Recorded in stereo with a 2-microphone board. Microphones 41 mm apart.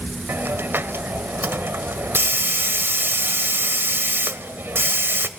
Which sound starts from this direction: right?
A hiss, at 0.3 s.